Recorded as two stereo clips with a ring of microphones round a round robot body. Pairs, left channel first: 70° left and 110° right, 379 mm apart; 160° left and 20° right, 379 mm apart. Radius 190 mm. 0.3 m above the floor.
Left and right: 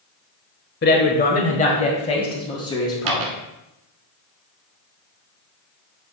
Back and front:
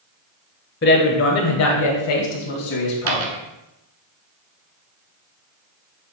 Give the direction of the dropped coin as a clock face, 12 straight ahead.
2 o'clock.